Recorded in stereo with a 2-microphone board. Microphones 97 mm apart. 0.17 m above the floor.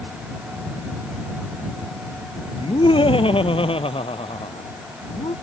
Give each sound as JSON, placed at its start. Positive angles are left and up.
{"t": 2.6, "sound": "laughter", "side_deg": 60}